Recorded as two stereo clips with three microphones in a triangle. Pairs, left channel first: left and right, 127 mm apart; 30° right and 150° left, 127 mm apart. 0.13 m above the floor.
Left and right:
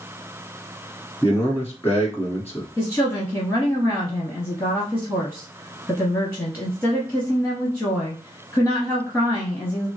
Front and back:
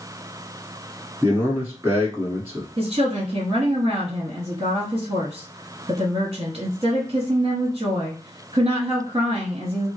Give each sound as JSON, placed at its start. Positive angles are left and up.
{"t": 1.2, "sound": "a man speaking", "azimuth_deg": 120, "distance_m": 1.2}
{"t": 2.8, "sound": "a woman speaking", "azimuth_deg": 150, "distance_m": 1.5}